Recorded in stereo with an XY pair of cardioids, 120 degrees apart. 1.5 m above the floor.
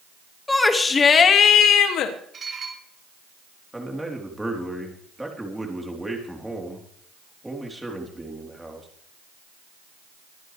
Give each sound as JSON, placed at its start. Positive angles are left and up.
{"t": 0.5, "sound": "a shout", "azimuth_deg": 15, "distance_m": 2.0}
{"t": 2.3, "sound": "dishes clattering", "azimuth_deg": -30, "distance_m": 4.0}
{"t": 3.7, "sound": "a man speaking", "azimuth_deg": -5, "distance_m": 3.5}